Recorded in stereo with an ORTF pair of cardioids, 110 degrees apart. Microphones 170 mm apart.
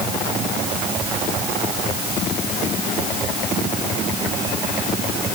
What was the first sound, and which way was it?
Only background noise.